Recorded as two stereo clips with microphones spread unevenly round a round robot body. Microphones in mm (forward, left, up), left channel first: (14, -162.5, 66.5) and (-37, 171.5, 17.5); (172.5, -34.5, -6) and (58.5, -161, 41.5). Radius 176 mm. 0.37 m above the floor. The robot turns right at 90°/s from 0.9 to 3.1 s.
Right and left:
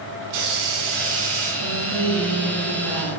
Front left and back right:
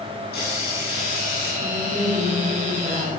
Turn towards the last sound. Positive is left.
turn(degrees=-80)